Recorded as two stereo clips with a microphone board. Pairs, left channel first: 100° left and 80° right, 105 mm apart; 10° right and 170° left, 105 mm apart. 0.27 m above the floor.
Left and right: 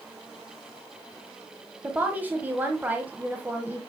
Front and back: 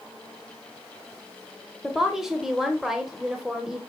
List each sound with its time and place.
1.8 s a woman speaking: 110° right, 1.1 m